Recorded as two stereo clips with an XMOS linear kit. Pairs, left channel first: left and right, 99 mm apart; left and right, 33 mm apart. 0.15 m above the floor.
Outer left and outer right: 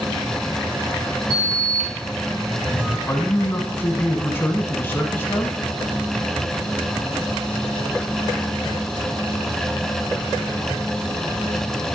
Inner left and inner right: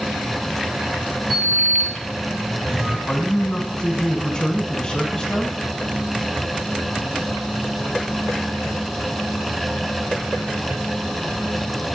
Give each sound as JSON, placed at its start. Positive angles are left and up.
{"t": 1.3, "sound": "a sliding door", "side_deg": -25, "distance_m": 1.8}
{"t": 3.1, "sound": "a man speaking", "side_deg": 20, "distance_m": 1.1}